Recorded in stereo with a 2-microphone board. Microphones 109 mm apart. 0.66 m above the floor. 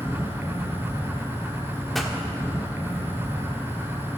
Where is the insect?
25° right (ahead or behind), 3 m.